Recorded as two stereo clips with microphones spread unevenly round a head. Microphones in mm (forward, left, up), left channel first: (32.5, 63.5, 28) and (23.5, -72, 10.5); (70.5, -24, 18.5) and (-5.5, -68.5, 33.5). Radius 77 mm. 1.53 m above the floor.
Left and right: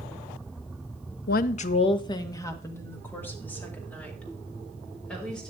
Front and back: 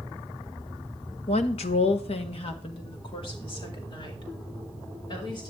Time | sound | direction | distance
1.3 | a woman speaking | 80° left | 0.8 m